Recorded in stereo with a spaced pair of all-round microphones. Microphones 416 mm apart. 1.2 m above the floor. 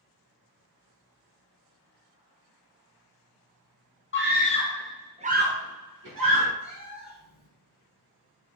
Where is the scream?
30° left (ahead or behind), 0.8 m; by 6.5 s 60° right (ahead or behind), 1.0 m.